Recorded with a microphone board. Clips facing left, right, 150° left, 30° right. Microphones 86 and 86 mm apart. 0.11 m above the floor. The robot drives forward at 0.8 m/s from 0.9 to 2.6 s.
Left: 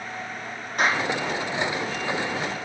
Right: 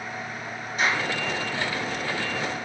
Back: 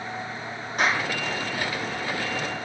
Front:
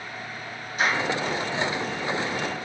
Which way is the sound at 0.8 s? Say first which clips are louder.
Left 2 dB, even; 120° left.